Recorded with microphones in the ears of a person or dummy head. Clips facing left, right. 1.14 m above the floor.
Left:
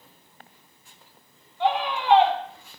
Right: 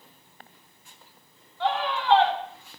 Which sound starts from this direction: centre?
A scream, at 1.6 s.